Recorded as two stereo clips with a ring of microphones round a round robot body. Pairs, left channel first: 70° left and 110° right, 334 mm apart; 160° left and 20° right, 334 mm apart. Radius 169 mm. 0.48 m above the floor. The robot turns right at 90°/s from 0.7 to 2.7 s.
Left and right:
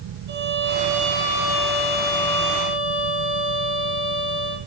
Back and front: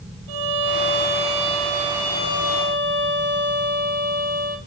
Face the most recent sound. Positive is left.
turn(degrees=130)